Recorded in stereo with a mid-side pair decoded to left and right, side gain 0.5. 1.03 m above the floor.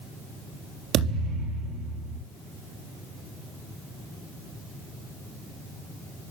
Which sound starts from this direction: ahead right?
A thud, at 0.9 s.